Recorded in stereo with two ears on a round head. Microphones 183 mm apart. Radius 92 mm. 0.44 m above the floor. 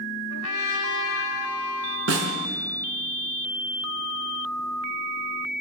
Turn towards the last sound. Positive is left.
turn(degrees=-70)  # may be behind; listen again after turning